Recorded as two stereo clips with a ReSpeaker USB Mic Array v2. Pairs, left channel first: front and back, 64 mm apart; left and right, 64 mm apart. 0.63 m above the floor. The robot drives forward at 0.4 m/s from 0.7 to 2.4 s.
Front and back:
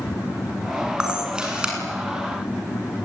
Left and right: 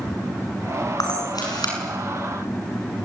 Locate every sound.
1.0 s a camera shutter: 105° left, 8 m